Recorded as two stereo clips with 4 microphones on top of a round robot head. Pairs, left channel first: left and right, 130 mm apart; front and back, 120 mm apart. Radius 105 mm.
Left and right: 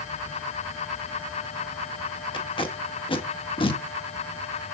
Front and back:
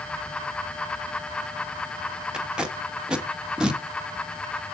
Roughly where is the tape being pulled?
Left.